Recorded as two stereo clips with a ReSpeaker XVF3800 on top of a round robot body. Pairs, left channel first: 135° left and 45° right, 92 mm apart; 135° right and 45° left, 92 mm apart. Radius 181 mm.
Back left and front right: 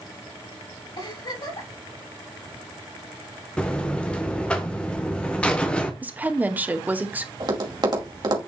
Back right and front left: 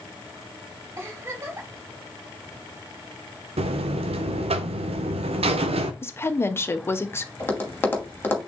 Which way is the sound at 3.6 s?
55° left.